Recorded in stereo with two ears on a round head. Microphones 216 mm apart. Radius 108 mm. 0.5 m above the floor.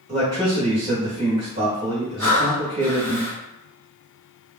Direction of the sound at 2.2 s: 10° left (ahead or behind).